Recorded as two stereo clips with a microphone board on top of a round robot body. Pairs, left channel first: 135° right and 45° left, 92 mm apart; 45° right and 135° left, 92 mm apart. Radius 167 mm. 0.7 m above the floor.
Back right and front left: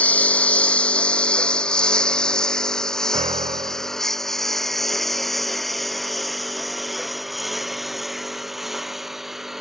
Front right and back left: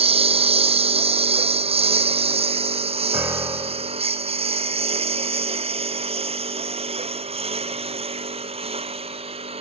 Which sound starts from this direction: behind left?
A lawn mower, at 0.0 s.